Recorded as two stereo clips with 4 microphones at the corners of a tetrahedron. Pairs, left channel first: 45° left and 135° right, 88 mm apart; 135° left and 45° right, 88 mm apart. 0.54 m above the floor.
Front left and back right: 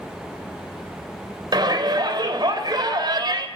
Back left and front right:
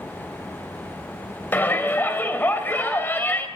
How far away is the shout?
About 2.5 m.